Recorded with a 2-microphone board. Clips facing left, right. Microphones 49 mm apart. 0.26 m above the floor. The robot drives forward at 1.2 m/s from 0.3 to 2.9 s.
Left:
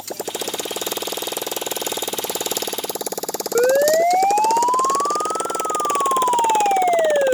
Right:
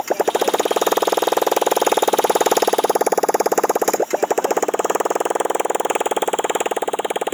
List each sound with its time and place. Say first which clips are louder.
0.0 s a motorcycle: right 10 dB; 45° right (ahead or behind); by 7.4 s 20° right (ahead or behind)
3.5 s a siren: left 3 dB; 85° left